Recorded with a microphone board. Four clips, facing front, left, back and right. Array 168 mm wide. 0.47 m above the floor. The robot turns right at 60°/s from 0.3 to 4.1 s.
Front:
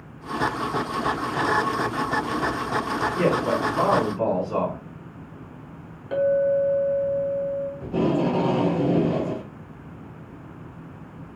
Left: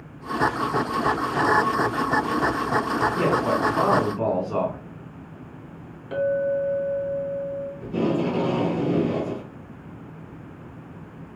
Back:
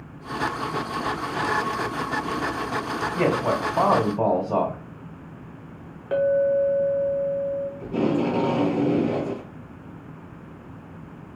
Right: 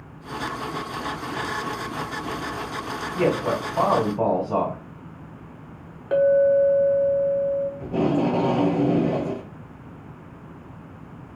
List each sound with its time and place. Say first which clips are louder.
3.1 s a man speaking: right 4 dB, back 1 dB; 165° left, 2 m; by 4.8 s 140° right, 2 m
6.1 s a clink: right 6 dB, even; 110° right, 0.6 m
7.8 s tape being pulled: left 1 dB, front 1 dB; 75° right, 2 m